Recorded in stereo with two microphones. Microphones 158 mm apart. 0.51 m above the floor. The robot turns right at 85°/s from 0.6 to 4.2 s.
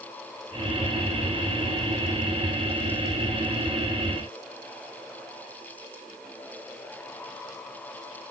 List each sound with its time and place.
Only background noise.